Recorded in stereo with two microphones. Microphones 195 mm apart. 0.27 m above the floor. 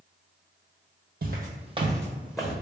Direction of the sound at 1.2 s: 60° right (ahead or behind).